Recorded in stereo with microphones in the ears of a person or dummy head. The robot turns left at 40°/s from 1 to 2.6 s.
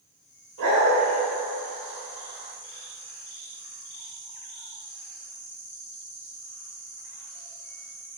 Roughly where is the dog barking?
Right.